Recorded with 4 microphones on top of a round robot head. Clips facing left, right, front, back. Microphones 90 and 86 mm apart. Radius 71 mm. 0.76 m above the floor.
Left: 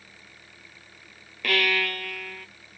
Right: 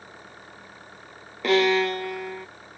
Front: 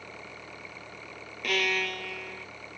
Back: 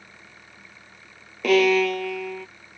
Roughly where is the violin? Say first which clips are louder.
Right 7 dB, back 12 dB; behind.